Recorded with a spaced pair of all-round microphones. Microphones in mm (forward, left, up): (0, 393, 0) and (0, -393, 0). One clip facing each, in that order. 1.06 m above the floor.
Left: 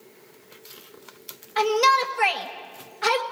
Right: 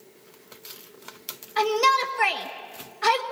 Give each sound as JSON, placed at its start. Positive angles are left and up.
{"t": 1.6, "sound": "a shout", "side_deg": 25, "distance_m": 1.8}